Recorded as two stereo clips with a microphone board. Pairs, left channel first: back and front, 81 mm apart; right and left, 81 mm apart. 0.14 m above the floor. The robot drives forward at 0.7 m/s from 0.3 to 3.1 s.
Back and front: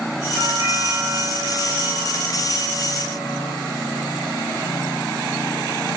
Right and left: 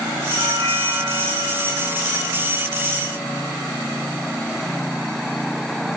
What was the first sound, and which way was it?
A doorbell, 40° right.